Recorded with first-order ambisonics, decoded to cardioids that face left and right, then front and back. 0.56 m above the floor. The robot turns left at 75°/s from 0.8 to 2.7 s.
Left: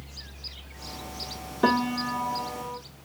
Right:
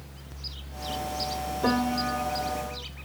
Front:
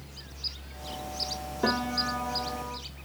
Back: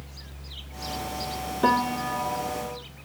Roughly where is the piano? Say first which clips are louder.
Left 3 dB, back 5 dB; left.